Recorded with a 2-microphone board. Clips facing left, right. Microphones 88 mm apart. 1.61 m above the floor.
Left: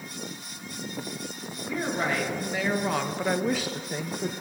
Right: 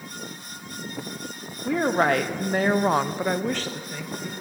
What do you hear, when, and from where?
1.6 s a woman speaking: 65° right (ahead or behind), 1.1 m; by 4.3 s 45° left (ahead or behind), 0.7 m